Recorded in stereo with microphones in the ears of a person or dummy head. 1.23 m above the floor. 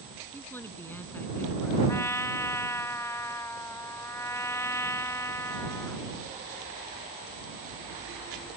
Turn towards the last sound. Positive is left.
turn(degrees=10)  # may be behind; listen again after turning